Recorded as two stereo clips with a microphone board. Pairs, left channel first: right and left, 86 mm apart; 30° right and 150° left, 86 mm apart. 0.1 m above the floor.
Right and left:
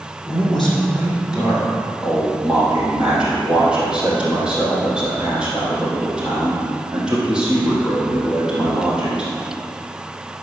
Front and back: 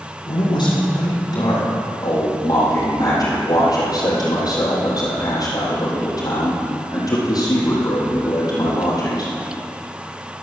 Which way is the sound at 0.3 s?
10° right.